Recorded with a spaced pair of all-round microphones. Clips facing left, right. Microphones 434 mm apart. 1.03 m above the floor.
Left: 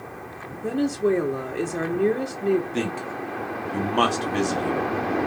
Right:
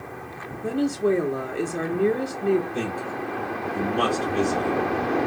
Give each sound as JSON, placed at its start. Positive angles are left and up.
{"t": 0.6, "sound": "a woman speaking", "side_deg": 0, "distance_m": 0.7}
{"t": 2.7, "sound": "a man speaking", "side_deg": 85, "distance_m": 1.1}